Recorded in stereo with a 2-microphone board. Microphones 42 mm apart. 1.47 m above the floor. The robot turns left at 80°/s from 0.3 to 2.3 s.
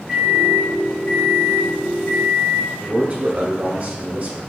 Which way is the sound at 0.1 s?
170° right.